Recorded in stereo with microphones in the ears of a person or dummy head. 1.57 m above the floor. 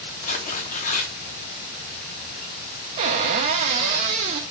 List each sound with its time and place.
0.2 s tearing paper: 40° left (ahead or behind), 0.6 m
3.0 s a cupboard door: 30° right (ahead or behind), 0.5 m